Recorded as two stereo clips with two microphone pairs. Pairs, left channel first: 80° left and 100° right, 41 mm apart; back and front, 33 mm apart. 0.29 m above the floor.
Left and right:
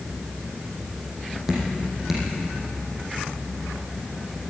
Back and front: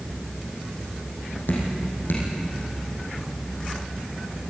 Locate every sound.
1.5 s dripping: 175° right, 5.5 m